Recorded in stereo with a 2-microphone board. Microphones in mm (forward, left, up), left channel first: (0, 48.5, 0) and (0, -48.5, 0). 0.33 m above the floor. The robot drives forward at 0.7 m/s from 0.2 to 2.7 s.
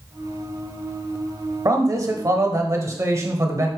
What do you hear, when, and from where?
1.6 s a man speaking: 35° right (ahead or behind), 1.2 m